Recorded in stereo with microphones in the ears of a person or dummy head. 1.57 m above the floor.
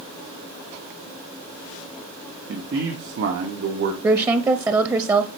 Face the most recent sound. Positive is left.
turn(degrees=-15)  # may be behind; listen again after turning